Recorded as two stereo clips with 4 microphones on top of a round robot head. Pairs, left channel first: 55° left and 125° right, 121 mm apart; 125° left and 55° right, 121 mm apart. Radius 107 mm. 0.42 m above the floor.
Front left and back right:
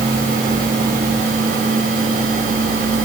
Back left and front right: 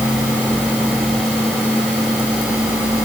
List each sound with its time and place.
Only background noise.